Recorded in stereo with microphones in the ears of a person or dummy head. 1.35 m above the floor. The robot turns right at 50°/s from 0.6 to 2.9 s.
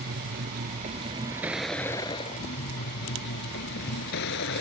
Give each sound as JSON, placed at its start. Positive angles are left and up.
{"t": 0.0, "sound": "a vehicle", "azimuth_deg": -50}